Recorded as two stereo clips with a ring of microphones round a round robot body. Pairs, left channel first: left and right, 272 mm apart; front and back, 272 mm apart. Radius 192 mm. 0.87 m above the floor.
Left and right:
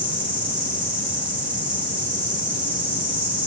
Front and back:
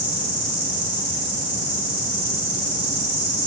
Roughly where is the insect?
Behind.